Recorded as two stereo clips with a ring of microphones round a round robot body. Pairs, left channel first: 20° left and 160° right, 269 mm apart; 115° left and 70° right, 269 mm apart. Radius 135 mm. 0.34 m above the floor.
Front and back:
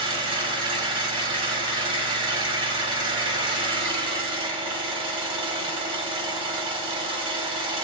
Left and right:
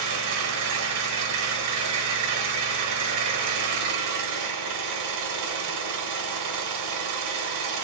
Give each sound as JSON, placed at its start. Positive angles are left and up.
{"t": 0.0, "sound": "an engine running", "azimuth_deg": -85, "distance_m": 0.7}